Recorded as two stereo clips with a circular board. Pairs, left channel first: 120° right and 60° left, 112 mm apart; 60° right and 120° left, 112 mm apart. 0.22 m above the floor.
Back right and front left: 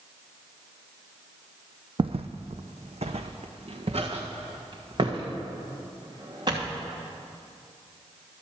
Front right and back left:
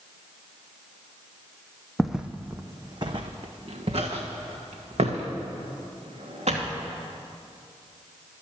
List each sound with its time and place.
2.0 s footsteps: 25° left, 0.6 m; by 6.8 s 110° left, 3 m